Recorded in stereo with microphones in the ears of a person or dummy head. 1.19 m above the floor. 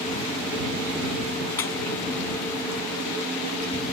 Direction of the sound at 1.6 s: 20° left (ahead or behind).